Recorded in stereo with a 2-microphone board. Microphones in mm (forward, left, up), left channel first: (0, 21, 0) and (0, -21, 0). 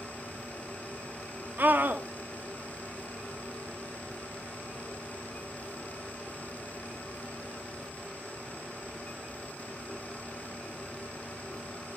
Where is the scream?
50° right (ahead or behind), 1.4 m.